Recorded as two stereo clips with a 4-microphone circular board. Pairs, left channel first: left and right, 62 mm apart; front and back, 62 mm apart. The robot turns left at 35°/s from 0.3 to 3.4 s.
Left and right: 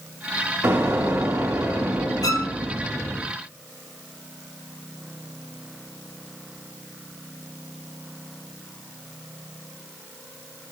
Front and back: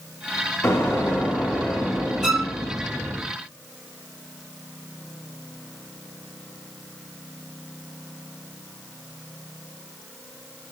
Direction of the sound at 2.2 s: 95° left.